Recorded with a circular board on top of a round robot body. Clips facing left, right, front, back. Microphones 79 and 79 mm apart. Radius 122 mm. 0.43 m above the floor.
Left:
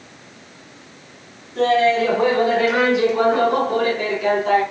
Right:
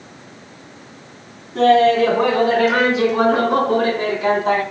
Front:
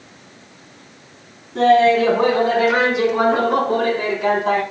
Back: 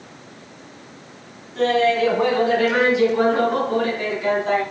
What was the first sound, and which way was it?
Laughter, 45° right.